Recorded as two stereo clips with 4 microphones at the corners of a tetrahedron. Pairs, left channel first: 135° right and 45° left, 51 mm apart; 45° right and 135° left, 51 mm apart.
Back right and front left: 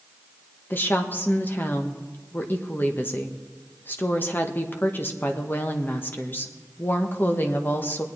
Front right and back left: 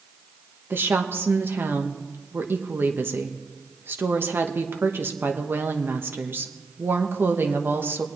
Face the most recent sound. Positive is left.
turn(degrees=175)